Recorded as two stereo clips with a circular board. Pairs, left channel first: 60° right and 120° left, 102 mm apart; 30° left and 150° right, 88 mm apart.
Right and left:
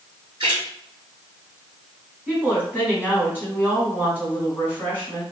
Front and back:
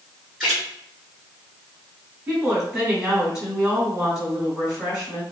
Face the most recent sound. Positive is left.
turn(degrees=155)